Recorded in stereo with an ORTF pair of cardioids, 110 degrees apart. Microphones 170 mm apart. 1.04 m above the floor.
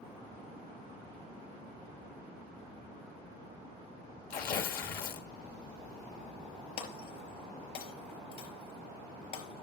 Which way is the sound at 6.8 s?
65° left.